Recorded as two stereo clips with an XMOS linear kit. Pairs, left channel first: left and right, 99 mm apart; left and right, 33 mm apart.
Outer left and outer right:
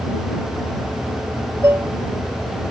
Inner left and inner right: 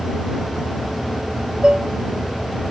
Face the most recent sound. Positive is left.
turn(degrees=-25)  # may be behind; listen again after turning